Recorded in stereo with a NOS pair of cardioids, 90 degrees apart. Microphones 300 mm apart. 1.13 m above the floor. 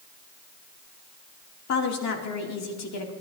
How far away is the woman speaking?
About 2.5 m.